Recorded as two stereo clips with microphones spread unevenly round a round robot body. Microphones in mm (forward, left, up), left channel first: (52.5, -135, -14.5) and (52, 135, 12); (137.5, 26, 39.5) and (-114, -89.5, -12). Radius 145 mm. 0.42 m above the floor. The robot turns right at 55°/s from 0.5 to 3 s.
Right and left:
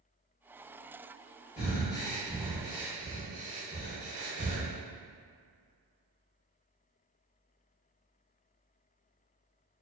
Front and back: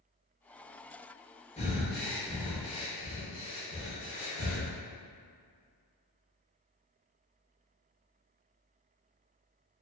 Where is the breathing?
45° right, 0.7 m; by 4.7 s 30° left, 0.7 m.